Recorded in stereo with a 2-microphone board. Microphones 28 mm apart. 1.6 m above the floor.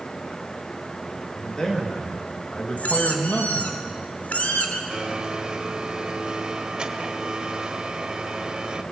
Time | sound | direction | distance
1.4 | a man speaking | 20° left (ahead or behind) | 3.5 m
2.8 | a squeak | 60° left (ahead or behind) | 2.5 m
4.9 | a blender | 30° right (ahead or behind) | 1.6 m